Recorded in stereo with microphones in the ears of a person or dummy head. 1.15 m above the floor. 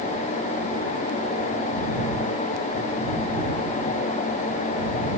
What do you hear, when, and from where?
Only background noise.